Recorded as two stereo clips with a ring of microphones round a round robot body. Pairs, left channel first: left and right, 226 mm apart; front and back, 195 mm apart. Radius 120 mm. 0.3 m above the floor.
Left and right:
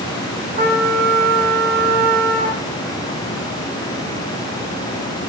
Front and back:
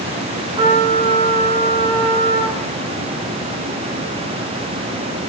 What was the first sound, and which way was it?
A trumpet, 125° right.